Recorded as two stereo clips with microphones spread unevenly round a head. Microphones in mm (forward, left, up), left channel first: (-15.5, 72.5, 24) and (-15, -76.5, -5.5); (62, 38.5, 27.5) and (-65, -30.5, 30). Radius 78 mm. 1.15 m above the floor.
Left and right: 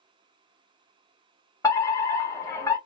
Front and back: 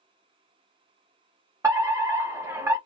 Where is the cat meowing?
I don't hear a cat meowing.